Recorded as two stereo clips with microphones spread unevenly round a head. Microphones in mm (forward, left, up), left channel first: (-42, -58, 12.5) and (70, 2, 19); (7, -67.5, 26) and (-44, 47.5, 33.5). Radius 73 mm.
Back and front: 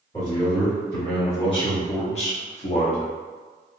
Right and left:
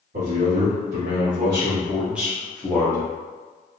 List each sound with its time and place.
0.1 s a man speaking: 140° left, 1.4 m; by 3.1 s 125° right, 1.0 m